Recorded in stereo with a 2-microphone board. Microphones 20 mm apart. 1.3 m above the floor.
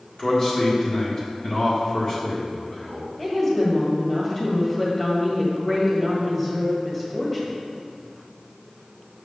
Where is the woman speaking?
15° left (ahead or behind), 1.9 m.